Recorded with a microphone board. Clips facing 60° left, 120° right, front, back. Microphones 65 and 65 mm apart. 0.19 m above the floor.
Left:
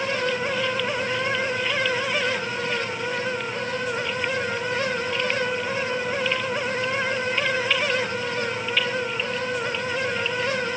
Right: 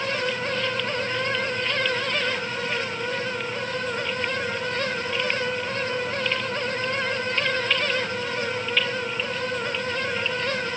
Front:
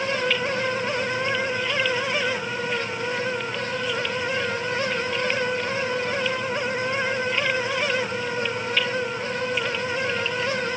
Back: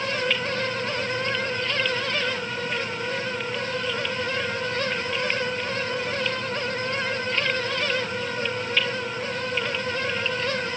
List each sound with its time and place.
Only background noise.